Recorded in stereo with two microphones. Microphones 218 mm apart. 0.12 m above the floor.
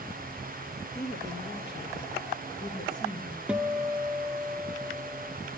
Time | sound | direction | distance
0.9 | a woman speaking | 50° left (ahead or behind) | 2.5 m
3.5 | a guitar | 5° right (ahead or behind) | 0.7 m